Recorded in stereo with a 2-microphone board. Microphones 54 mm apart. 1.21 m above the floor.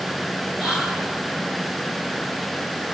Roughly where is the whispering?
Centre.